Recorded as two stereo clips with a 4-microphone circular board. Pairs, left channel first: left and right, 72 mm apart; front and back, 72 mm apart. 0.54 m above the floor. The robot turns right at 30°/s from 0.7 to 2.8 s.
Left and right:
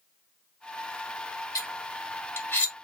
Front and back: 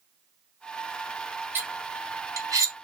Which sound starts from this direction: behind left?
Cutlery clinking, at 1.6 s.